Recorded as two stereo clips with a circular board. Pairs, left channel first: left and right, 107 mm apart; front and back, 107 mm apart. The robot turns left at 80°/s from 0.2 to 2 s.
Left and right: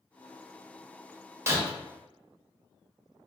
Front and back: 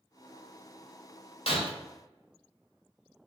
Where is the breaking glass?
25° right, 1.2 m; by 1.7 s 45° right, 1.2 m.